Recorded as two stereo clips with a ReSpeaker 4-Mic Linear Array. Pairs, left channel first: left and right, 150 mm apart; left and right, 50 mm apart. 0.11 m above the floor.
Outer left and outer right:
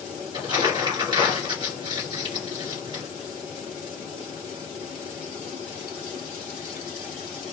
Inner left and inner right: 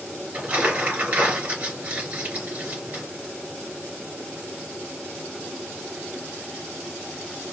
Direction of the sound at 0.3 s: 30° right (ahead or behind).